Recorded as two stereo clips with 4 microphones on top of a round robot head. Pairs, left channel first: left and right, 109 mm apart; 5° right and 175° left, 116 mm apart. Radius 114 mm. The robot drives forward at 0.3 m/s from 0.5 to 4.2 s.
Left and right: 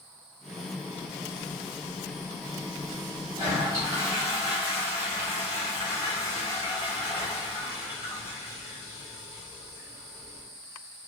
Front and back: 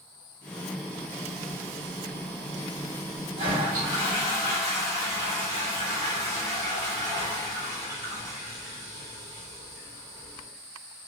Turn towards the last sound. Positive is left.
turn(degrees=-155)